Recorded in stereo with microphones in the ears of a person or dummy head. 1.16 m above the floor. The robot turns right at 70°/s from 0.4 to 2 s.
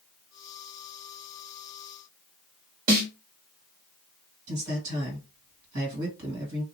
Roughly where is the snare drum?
Right.